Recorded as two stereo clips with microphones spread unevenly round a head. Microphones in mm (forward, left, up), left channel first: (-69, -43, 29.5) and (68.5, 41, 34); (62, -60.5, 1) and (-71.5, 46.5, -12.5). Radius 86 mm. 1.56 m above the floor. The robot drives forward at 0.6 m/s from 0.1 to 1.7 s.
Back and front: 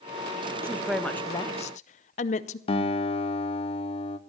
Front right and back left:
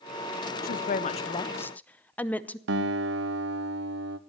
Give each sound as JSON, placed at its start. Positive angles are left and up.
{"t": 0.6, "sound": "a woman speaking", "azimuth_deg": -40, "distance_m": 0.7}
{"t": 2.7, "sound": "a guitar", "azimuth_deg": 155, "distance_m": 1.1}